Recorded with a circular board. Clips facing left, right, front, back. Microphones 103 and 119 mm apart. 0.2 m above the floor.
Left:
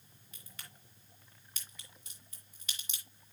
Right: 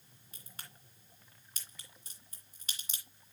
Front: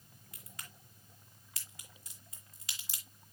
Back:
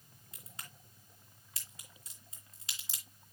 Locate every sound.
0.3 s a crack: 130° right, 2 m